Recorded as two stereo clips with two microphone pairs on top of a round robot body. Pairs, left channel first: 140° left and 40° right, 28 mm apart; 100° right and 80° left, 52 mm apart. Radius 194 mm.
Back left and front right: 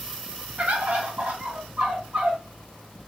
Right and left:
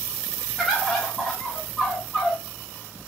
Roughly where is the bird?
Ahead.